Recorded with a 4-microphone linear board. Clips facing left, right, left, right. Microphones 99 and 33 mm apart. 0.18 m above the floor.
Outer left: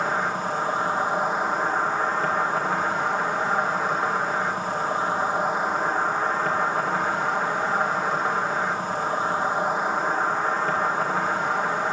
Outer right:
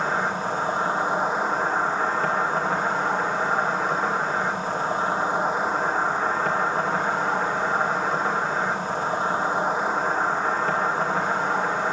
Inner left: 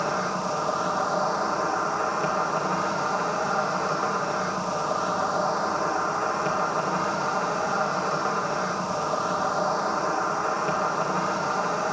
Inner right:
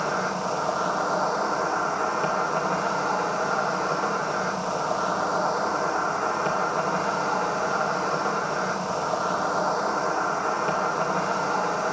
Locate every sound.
0.0 s an insect: 5° left (ahead or behind), 4 m